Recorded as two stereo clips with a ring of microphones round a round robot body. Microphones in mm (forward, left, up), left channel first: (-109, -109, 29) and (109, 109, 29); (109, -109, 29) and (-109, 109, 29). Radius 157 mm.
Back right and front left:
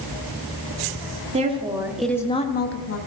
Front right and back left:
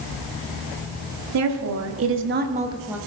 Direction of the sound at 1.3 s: 110° left.